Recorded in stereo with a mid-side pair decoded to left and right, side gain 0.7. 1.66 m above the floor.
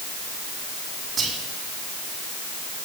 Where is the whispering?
40° right, 2 m.